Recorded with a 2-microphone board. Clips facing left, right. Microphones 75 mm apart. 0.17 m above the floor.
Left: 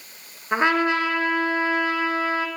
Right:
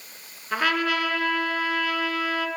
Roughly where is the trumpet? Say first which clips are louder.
Left 4 dB; left.